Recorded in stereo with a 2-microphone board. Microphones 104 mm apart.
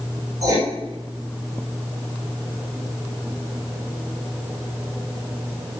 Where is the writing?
30° right (ahead or behind), 3 m.